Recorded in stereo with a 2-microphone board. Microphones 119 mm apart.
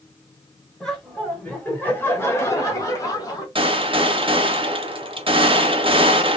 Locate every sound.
0.8 s laughter: 5° left (ahead or behind), 1.3 m; by 3.5 s 35° left (ahead or behind), 1.4 m
3.5 s a gunshot: 50° right (ahead or behind), 0.8 m